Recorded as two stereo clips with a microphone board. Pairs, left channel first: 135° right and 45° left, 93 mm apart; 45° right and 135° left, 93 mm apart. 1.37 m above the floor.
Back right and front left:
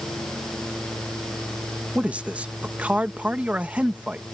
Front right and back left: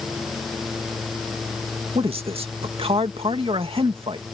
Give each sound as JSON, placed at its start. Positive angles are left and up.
{"t": 1.9, "sound": "a man speaking", "azimuth_deg": 120}